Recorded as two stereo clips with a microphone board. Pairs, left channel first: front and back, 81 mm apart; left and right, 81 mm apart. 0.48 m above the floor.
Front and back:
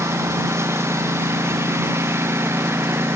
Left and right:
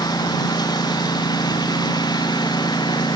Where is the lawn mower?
125° left; by 3.2 s 120° left.